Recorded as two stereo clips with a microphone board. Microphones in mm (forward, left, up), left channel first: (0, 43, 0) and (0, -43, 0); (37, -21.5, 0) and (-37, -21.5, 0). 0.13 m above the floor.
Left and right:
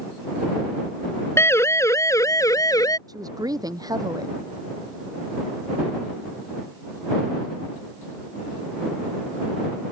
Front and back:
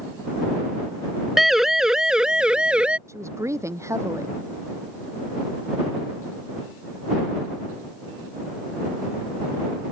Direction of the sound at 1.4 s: 95° left.